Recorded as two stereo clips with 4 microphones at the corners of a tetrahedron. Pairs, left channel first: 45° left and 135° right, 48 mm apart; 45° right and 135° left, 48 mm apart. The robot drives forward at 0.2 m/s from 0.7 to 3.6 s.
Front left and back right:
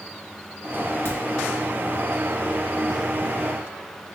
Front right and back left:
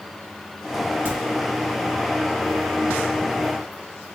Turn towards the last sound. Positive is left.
turn(degrees=100)